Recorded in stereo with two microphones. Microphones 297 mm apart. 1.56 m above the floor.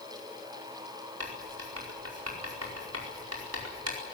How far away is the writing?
About 5 m.